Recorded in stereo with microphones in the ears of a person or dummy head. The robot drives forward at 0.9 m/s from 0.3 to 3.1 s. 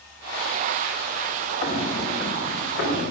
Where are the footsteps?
40° left (ahead or behind), 3.5 m.